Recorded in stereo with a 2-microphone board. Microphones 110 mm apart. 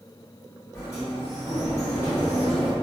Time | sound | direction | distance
0.7 | a sliding door | 25° left (ahead or behind) | 1.5 m